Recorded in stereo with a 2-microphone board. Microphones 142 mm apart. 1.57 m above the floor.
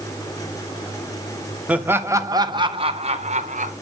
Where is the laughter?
10° right (ahead or behind), 1.8 m; by 3.7 s 60° right (ahead or behind), 2 m.